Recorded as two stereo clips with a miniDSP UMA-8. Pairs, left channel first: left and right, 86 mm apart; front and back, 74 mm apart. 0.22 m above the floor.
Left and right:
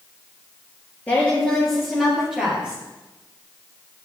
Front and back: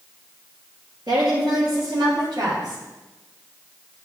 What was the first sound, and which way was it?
A woman speaking, 160° left.